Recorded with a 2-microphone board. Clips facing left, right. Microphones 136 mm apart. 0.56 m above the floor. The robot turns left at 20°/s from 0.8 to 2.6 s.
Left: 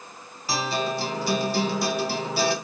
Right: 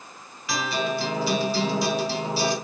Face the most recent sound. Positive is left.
turn(degrees=105)